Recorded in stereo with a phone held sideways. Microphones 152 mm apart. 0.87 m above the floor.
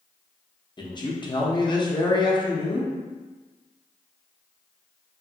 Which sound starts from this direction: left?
A man speaking, at 0.8 s.